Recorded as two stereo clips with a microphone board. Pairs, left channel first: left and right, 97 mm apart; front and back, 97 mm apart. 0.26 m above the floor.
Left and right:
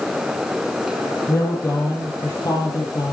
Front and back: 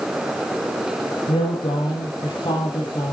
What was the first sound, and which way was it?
A woman speaking, 30° left.